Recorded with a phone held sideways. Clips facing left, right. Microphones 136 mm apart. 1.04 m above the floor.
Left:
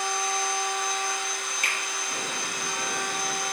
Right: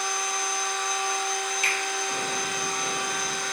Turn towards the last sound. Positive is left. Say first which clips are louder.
# right 3 dB
turn(degrees=50)  # may be behind; listen again after turning